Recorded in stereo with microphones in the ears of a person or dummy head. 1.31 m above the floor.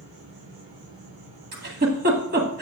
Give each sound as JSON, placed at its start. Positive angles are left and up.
{"t": 0.0, "sound": "an insect", "side_deg": -75, "distance_m": 4.0}
{"t": 1.5, "sound": "a giggle", "side_deg": -45, "distance_m": 1.8}